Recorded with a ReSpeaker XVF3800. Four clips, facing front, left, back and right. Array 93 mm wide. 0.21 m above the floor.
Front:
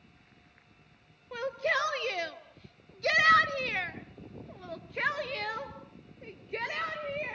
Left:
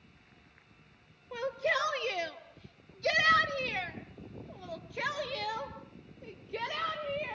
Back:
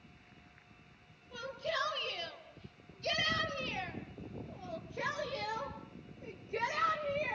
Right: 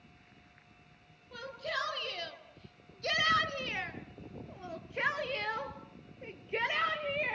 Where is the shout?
25° left, 4 m; by 7.3 s 60° right, 4.5 m.